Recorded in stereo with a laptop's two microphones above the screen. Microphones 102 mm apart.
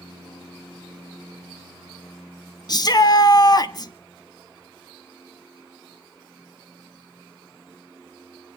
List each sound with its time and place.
2.7 s a shout: 45° left (ahead or behind), 1.5 m